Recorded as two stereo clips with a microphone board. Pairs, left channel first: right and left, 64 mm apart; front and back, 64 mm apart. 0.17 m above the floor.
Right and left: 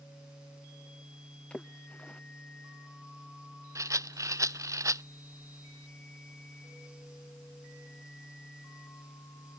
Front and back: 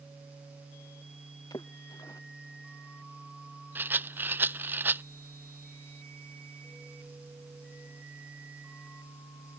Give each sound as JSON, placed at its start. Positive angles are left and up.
{"t": 1.5, "sound": "a splash", "azimuth_deg": -20}
{"t": 3.8, "sound": "a rattle", "azimuth_deg": 120}